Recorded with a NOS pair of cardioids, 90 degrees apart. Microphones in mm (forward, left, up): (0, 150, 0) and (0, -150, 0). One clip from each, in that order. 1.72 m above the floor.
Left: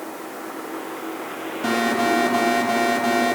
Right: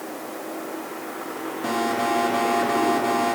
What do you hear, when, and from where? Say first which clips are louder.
1.6 s an alarm: left 3 dB; 40° left, 8 m